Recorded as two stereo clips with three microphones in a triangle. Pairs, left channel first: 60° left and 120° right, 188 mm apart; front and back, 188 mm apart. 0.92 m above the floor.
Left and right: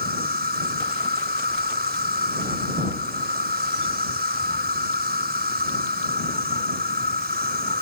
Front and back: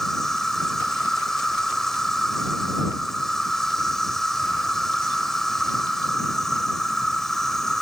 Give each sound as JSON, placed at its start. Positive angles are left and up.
{"t": 0.0, "sound": "an insect", "azimuth_deg": -90}